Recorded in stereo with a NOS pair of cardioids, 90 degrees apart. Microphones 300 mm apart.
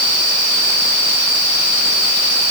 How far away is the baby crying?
No baby crying in this recording.